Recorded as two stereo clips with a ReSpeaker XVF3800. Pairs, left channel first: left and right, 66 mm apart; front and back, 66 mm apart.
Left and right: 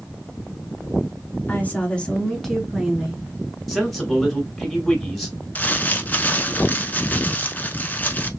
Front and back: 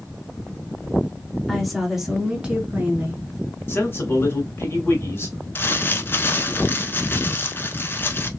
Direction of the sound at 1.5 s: 85° left.